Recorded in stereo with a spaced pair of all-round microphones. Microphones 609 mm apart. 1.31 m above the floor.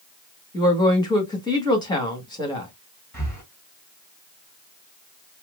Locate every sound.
0.5 s a woman speaking: 5° left (ahead or behind), 1.6 m
3.1 s breathing: 15° left (ahead or behind), 2.5 m